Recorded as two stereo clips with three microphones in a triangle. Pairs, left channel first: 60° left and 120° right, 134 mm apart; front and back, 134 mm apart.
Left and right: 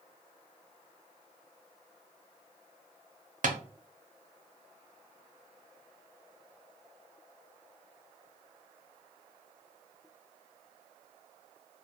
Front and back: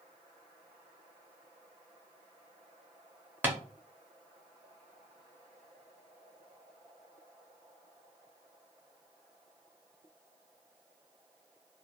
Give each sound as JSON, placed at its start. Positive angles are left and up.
{"t": 3.4, "sound": "tapping", "azimuth_deg": -105, "distance_m": 0.6}